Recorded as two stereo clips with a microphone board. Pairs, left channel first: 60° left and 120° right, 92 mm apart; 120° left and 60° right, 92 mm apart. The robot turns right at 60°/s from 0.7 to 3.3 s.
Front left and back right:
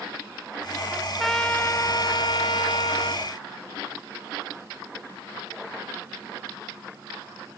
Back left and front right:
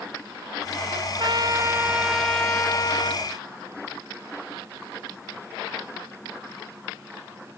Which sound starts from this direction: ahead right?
A trumpet, at 0.9 s.